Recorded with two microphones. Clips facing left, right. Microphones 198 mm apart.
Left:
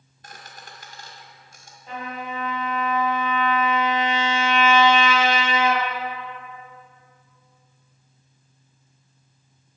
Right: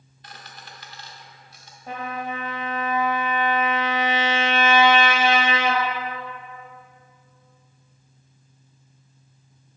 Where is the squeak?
45° left (ahead or behind), 1.6 m.